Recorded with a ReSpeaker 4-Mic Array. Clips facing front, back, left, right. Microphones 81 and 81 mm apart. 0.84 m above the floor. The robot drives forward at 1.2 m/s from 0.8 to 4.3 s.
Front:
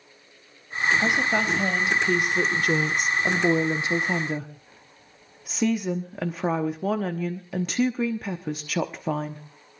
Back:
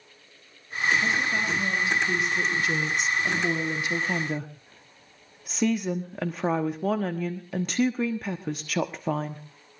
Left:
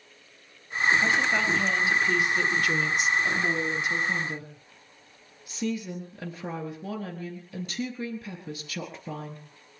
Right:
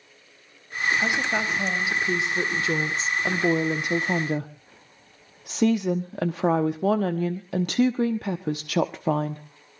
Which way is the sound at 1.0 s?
15° right.